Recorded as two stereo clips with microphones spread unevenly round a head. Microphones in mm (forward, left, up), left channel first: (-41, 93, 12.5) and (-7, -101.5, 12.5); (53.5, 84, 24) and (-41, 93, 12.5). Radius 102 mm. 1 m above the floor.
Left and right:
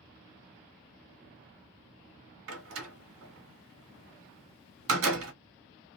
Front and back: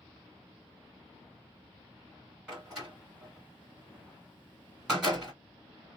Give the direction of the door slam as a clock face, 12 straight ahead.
3 o'clock.